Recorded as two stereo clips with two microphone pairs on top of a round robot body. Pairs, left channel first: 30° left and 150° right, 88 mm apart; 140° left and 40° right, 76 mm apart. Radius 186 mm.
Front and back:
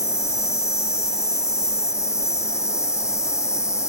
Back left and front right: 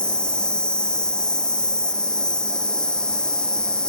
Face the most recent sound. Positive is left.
turn(degrees=75)